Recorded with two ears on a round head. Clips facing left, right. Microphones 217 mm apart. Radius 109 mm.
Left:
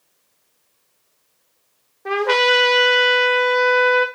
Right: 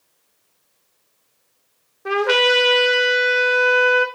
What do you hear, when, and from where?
2.0 s a trumpet: 10° right (ahead or behind), 1.2 m